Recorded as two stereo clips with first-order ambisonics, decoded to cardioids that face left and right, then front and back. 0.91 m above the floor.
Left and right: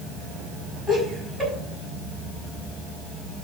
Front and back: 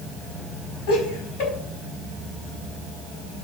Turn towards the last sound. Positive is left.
turn(degrees=5)